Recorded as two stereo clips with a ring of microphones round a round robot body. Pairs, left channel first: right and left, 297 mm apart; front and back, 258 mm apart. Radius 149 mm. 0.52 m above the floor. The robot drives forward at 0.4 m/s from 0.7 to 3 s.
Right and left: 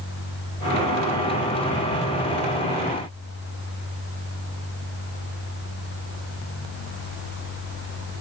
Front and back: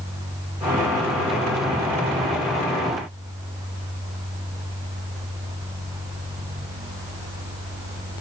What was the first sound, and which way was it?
Only background noise.